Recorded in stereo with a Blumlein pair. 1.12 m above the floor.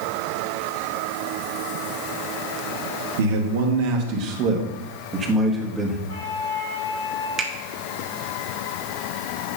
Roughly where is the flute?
Ahead left.